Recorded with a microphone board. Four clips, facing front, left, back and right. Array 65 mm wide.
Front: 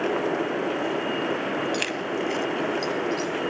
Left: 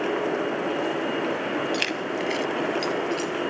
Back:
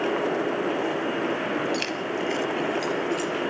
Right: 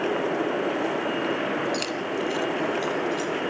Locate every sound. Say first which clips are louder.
1.7 s keys jangling: even, front 1 dB; 60° left, 0.8 m; by 3.3 s 115° left, 1.8 m